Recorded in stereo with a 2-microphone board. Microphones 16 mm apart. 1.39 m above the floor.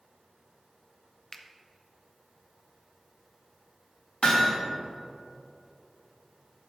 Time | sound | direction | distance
1.3 | a finger snap | 35° left (ahead or behind) | 0.6 m
4.2 | hammering | 75° left (ahead or behind) | 1.6 m